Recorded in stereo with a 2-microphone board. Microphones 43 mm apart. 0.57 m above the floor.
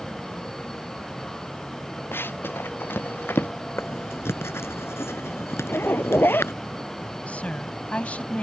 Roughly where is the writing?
Left.